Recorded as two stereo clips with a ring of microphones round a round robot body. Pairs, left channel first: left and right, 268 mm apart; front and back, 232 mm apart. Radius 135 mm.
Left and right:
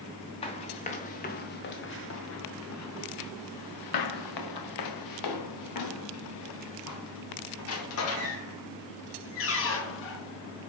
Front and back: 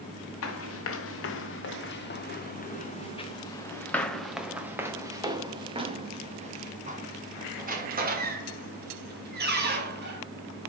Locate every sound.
0.4 s running footsteps: 20° left, 2 m; by 10.2 s 135° left, 4.5 m